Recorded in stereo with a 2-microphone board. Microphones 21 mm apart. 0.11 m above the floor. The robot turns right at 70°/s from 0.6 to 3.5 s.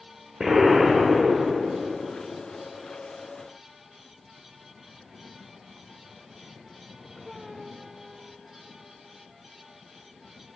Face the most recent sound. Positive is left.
turn(degrees=170)